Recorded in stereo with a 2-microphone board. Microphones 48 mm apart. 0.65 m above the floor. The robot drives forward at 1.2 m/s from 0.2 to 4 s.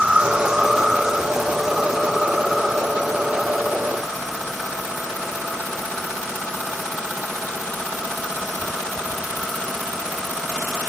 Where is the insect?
20° right (ahead or behind); by 10.9 s 5° right (ahead or behind).